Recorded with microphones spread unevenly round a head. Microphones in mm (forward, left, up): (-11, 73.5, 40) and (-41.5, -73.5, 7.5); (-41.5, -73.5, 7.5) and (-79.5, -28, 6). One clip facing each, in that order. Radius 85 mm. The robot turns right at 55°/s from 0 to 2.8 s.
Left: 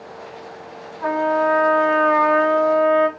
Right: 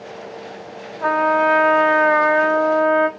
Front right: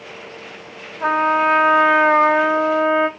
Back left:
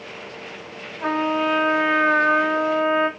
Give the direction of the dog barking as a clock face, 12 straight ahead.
No dog barking in this recording.